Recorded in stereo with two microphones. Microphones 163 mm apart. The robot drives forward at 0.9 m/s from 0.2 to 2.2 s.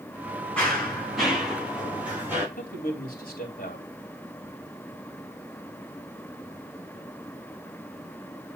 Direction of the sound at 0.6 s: 5° left (ahead or behind).